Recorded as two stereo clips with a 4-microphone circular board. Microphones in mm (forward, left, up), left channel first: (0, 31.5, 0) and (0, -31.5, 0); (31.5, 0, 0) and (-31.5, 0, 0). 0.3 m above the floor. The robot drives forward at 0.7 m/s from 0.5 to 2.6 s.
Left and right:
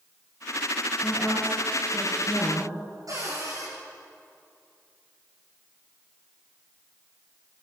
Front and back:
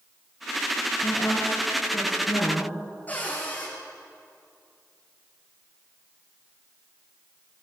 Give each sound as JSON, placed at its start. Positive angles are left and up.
{"t": 1.0, "sound": "a woman speaking", "azimuth_deg": 15, "distance_m": 7.0}
{"t": 3.1, "sound": "a cupboard door", "azimuth_deg": -65, "distance_m": 8.5}